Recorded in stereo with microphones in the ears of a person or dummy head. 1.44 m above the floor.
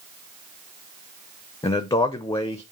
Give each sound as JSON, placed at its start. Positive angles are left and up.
{"t": 1.6, "sound": "a man speaking", "side_deg": 20, "distance_m": 0.6}